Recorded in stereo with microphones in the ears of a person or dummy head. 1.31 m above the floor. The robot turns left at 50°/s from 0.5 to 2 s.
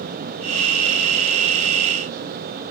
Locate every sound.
Only background noise.